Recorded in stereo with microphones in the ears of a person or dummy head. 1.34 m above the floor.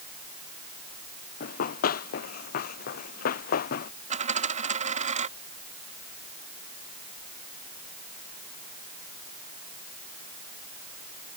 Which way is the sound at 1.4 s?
55° left (ahead or behind).